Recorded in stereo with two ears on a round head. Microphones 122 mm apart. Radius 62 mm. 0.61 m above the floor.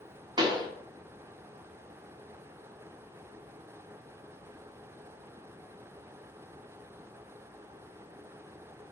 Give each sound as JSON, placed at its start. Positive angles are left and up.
{"t": 0.4, "sound": "a pop", "side_deg": -30, "distance_m": 1.3}